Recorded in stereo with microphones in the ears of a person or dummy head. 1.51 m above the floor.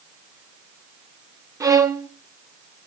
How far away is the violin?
About 0.6 m.